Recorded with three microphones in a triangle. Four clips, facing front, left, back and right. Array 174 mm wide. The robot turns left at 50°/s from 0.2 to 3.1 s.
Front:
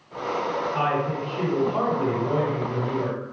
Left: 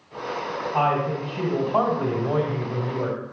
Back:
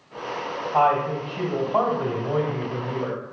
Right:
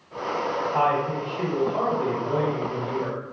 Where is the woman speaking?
170° right, 2 m; by 3.2 s 75° left, 2 m.